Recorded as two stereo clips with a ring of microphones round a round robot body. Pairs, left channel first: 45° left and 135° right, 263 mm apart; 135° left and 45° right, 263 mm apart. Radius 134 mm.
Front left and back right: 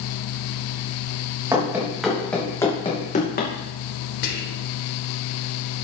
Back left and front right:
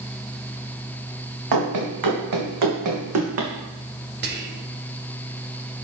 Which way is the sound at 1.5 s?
55° right.